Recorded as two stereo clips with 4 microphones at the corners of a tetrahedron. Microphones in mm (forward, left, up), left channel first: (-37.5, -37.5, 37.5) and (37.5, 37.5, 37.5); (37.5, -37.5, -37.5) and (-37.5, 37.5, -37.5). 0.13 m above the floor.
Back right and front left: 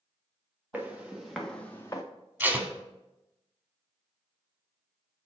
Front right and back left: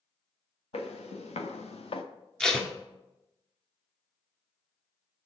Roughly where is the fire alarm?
No fire alarm in this recording.